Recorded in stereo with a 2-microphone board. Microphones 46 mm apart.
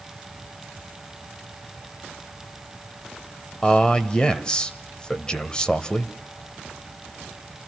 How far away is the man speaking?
About 1.4 m.